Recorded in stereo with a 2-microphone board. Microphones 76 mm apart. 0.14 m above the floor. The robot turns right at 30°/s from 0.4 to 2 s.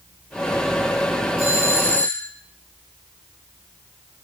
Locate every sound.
1.4 s a doorbell: 40° left (ahead or behind), 4 m; by 2.3 s 25° left (ahead or behind), 4 m